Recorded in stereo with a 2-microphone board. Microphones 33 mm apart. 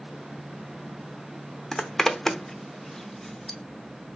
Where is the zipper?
10° left (ahead or behind), 0.6 m.